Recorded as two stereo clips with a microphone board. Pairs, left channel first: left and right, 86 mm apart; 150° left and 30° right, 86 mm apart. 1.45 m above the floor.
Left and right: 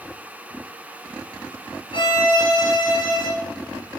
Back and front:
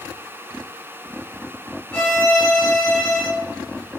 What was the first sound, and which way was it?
A violin, 65° left.